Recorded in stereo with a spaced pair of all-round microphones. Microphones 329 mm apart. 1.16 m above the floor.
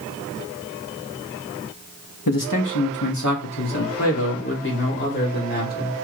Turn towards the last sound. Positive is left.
turn(degrees=25)  # may be behind; listen again after turning